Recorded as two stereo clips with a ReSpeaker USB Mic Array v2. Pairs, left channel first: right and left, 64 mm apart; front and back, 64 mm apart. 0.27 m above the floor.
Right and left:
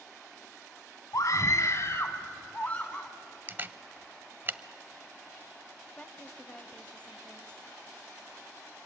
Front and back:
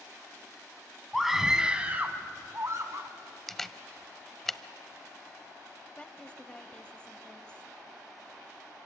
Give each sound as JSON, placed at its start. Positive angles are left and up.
{"t": 1.1, "sound": "a scream", "azimuth_deg": -95, "distance_m": 1.8}
{"t": 3.5, "sound": "a camera shutter", "azimuth_deg": 80, "distance_m": 0.5}
{"t": 6.0, "sound": "a woman speaking", "azimuth_deg": -50, "distance_m": 1.1}